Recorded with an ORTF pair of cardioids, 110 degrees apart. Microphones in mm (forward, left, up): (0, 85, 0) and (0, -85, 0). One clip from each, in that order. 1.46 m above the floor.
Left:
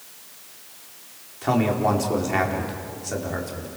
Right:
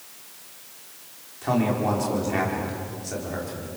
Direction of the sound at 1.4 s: 25° left.